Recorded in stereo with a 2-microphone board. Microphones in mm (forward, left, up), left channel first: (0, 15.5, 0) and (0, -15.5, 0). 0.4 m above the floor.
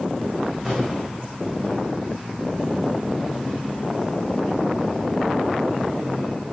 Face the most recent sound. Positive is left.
turn(degrees=-10)  # may be behind; listen again after turning